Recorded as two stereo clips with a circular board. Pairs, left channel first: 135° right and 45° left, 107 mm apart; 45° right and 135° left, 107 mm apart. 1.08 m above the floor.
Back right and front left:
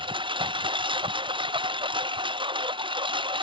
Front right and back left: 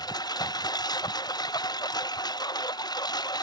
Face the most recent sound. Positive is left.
turn(degrees=5)